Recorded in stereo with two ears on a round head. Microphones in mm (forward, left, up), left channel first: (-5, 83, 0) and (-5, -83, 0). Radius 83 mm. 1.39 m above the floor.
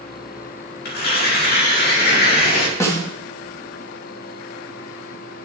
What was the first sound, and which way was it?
Tearing paper, 60° left (ahead or behind).